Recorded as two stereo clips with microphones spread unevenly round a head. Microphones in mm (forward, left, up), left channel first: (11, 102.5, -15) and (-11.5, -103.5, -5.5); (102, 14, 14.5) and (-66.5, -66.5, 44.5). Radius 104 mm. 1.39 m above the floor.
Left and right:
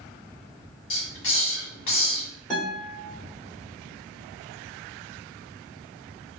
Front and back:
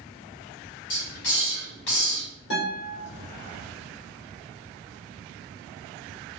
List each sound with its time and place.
0.9 s a hiss: 50° left, 1.9 m
2.5 s a guitar: 5° right, 2 m